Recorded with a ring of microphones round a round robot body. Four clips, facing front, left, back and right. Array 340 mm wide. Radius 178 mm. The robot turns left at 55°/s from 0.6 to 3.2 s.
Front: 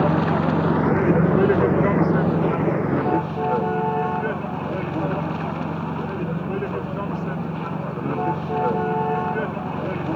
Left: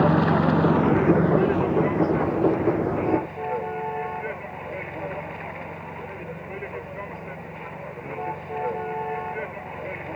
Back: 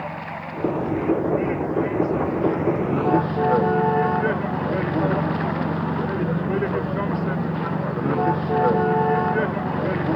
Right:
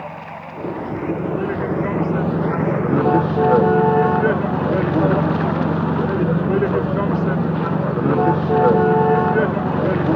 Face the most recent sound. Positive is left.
turn(degrees=-95)